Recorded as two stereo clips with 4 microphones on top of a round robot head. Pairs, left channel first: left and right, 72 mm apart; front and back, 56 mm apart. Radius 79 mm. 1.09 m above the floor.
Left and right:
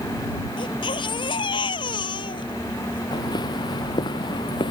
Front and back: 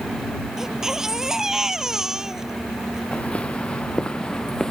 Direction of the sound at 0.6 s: 100° left.